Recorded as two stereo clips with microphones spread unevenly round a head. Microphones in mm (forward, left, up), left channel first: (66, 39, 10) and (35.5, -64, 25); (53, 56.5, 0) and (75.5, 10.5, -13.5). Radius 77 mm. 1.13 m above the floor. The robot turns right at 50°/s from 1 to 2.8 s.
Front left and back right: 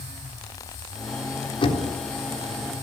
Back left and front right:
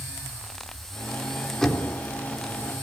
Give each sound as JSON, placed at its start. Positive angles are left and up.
{"t": 1.6, "sound": "knocking", "azimuth_deg": 35, "distance_m": 3.5}